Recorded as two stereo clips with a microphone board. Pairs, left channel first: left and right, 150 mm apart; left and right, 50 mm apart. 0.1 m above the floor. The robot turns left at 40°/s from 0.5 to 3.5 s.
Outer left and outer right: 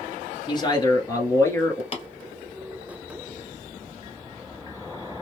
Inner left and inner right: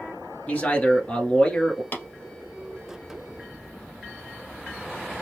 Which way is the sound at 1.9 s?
40° left (ahead or behind).